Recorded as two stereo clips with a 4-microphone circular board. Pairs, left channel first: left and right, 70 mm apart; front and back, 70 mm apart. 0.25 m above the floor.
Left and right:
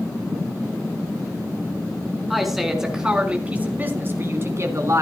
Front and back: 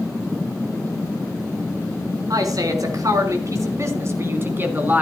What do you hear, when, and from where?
2.3 s a woman speaking: straight behind, 3.5 m; by 5.0 s 120° right, 3 m